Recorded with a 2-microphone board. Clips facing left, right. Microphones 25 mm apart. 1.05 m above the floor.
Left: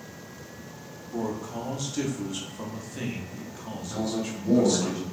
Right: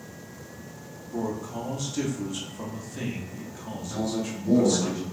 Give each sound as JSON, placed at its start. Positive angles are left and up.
{"t": 1.1, "sound": "a man speaking", "side_deg": 20, "distance_m": 0.9}
{"t": 3.9, "sound": "a man speaking", "side_deg": 20, "distance_m": 1.7}